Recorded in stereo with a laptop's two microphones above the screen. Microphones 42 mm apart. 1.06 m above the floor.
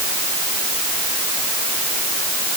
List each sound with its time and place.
Only background noise.